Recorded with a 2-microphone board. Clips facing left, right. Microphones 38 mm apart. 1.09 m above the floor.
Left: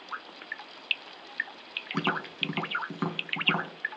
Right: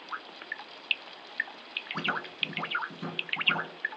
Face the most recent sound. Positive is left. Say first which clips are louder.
# left 2 dB
turn(degrees=70)  # may be behind; listen again after turning